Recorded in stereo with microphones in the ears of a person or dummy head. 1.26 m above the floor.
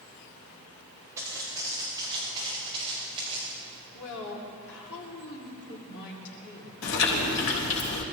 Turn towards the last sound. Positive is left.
turn(degrees=75)  # may be behind; listen again after turning